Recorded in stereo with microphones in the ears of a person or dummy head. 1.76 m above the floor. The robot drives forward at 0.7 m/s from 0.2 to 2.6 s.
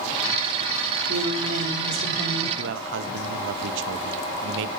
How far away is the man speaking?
About 1.3 m.